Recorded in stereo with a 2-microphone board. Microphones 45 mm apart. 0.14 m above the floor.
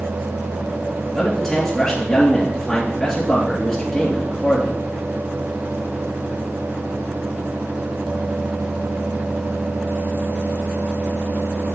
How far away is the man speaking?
About 2.5 m.